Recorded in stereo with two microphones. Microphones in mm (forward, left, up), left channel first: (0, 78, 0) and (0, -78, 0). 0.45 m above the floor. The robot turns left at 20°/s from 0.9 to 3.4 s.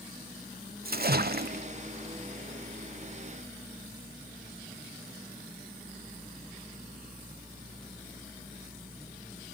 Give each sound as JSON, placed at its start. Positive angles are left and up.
{"t": 0.8, "sound": "a splash", "side_deg": -75, "distance_m": 0.7}